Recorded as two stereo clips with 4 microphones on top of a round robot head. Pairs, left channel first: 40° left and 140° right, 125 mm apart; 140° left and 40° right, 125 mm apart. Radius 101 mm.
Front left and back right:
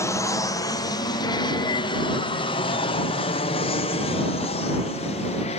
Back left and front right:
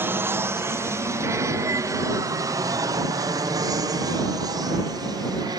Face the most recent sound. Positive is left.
turn(degrees=15)